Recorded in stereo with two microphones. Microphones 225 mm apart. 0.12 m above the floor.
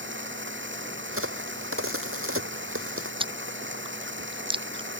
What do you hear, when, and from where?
0.0 s running water: 55° right (ahead or behind)
1.1 s a crack: 70° right (ahead or behind)
3.2 s chewing: 20° right (ahead or behind)